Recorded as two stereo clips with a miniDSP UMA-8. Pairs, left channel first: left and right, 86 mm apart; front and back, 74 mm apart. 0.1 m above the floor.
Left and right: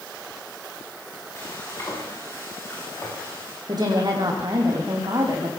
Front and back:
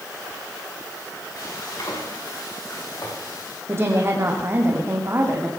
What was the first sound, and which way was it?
Frying, 35° left.